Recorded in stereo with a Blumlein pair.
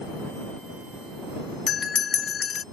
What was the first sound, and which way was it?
A bell, 20° left.